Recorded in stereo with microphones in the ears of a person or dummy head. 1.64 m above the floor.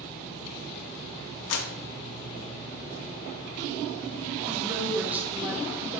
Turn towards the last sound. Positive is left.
turn(degrees=-5)  # may be behind; listen again after turning